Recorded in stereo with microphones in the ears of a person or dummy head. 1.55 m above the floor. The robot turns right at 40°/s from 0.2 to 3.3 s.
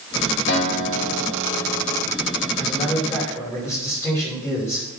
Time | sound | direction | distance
0.5 | a guitar | 55° left | 3 m
2.6 | a man speaking | 40° left (ahead or behind) | 6 m